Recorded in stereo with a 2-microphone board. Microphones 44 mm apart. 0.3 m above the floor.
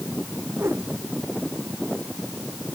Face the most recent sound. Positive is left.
turn(degrees=-85)